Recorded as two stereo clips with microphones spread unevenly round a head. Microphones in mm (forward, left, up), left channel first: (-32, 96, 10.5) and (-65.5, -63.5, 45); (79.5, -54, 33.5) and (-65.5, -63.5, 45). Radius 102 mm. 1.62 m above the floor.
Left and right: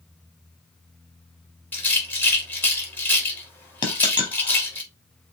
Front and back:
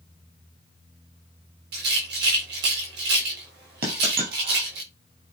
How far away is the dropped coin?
About 3.5 m.